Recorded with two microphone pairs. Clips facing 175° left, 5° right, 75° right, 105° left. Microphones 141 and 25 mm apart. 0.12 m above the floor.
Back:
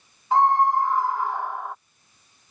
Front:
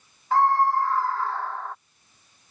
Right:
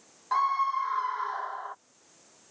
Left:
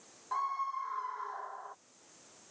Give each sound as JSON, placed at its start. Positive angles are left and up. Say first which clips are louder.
{"t": 0.3, "sound": "a scream", "louder": "back 1 dB, right 9 dB", "azimuth_deg": -110}